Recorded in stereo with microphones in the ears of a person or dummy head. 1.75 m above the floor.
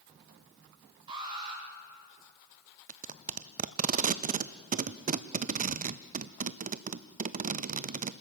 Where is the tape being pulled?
40° right (ahead or behind), 0.6 m.